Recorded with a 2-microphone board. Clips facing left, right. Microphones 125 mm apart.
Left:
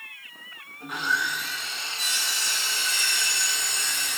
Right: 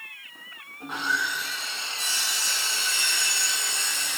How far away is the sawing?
About 1.9 m.